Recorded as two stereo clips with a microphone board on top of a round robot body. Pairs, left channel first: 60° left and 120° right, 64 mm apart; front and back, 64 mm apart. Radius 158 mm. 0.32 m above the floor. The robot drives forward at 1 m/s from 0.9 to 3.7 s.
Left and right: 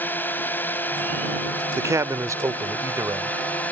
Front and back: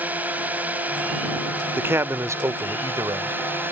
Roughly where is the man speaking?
Behind right.